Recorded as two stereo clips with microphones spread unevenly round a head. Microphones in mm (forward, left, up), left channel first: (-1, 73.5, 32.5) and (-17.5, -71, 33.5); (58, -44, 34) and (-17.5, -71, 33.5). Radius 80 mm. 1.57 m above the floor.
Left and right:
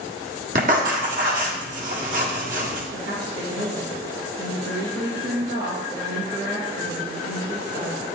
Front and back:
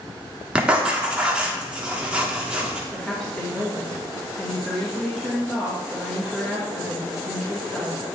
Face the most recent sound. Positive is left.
turn(degrees=-65)